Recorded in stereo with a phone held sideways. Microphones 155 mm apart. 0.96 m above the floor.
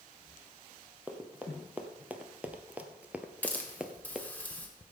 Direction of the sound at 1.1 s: 10° right (ahead or behind).